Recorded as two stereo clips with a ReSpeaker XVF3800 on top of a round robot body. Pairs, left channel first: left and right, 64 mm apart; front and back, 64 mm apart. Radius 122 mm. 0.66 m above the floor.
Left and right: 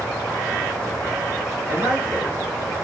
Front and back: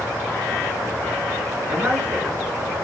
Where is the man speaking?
130° right, 2.0 m.